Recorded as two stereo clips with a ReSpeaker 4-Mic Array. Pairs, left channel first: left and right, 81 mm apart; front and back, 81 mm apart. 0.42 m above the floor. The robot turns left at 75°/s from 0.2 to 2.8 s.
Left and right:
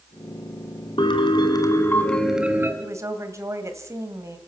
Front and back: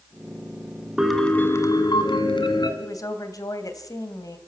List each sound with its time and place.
1.0 s a piano: 95° left, 2 m; by 2.7 s 30° right, 2 m
2.8 s a woman speaking: 40° right, 2.5 m